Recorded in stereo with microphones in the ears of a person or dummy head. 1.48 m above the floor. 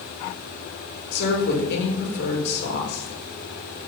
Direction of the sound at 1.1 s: 60° left (ahead or behind).